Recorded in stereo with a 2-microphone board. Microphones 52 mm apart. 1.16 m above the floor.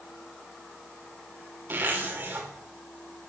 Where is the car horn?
I don't hear a car horn.